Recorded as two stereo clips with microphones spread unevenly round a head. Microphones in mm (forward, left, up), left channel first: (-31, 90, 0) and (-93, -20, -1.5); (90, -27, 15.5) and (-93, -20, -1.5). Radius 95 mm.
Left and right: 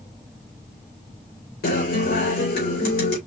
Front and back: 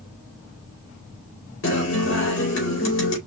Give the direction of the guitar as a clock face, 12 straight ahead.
11 o'clock.